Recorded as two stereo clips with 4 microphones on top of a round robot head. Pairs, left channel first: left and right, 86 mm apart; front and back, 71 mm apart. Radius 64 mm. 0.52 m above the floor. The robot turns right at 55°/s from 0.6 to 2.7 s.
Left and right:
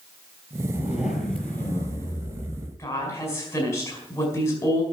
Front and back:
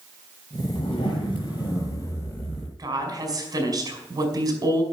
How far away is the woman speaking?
About 5.5 m.